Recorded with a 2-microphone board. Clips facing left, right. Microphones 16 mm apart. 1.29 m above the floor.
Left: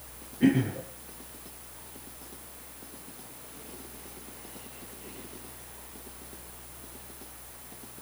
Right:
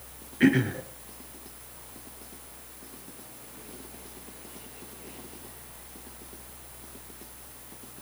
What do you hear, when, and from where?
0.4 s throat clearing: 75° right (ahead or behind), 3.5 m